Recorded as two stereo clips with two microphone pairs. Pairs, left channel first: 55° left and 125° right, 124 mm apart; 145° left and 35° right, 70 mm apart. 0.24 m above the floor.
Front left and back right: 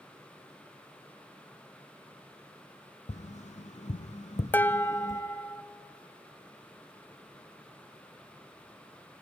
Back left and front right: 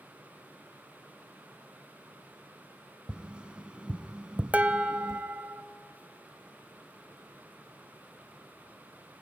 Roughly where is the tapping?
Ahead left.